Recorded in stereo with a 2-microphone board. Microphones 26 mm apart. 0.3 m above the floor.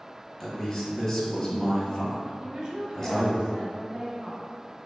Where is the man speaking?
25° left (ahead or behind), 1.2 m.